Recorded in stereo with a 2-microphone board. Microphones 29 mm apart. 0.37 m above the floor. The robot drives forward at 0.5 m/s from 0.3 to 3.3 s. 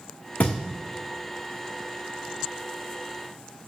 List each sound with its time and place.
0.4 s a thud: 50° left (ahead or behind), 1.6 m